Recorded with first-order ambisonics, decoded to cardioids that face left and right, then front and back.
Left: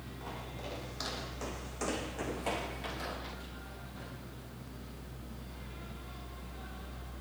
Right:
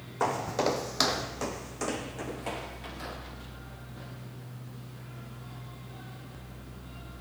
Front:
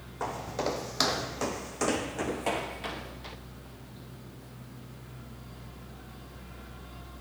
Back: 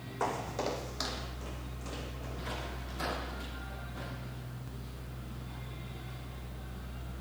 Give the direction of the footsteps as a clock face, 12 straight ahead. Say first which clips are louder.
Right 17 dB, front 1 dB; 3 o'clock.